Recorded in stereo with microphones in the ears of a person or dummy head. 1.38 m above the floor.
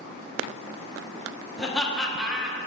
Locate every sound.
1.6 s laughter: centre (ahead or behind), 1.4 m